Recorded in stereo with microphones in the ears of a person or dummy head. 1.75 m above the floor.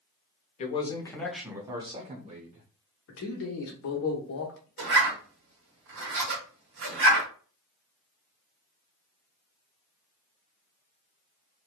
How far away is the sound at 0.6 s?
About 0.6 m.